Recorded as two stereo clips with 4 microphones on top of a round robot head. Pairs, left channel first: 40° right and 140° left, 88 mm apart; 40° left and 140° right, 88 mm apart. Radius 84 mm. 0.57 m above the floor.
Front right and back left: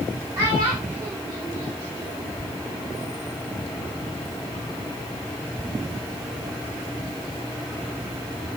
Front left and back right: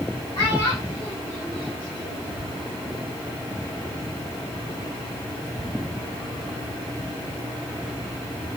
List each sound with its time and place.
0.3 s a child speaking: 80° left, 5 m